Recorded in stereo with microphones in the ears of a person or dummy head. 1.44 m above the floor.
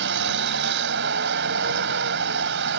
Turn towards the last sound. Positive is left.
turn(degrees=-65)  # may be behind; listen again after turning